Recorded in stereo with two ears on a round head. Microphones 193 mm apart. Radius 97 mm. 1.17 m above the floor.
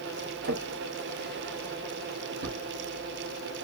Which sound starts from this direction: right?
A drawer, at 0.4 s.